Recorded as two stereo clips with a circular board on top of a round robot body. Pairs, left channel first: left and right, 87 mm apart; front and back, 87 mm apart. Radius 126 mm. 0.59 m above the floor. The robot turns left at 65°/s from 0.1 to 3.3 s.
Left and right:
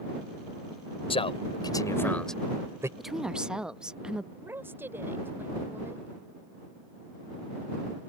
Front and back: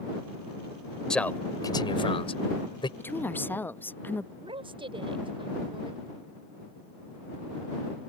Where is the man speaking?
85° left; by 2.9 s 30° right.